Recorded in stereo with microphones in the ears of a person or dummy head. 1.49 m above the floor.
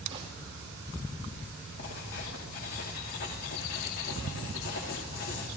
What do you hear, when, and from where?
0.1 s a gunshot: 30° right (ahead or behind), 1.9 m
1.8 s writing: 75° left (ahead or behind), 2.5 m